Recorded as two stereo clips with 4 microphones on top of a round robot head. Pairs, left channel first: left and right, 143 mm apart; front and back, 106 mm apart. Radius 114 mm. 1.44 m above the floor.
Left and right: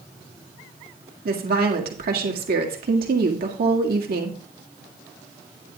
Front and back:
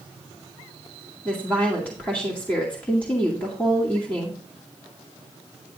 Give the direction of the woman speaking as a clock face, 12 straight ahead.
3 o'clock.